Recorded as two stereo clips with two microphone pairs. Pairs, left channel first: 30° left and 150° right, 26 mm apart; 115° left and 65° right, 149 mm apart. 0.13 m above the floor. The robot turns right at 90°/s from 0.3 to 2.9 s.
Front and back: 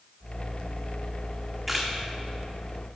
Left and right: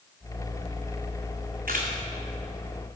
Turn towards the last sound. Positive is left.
turn(degrees=40)